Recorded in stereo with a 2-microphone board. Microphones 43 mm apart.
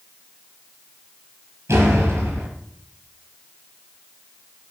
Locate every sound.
1.7 s a door slam: 80° right, 7 m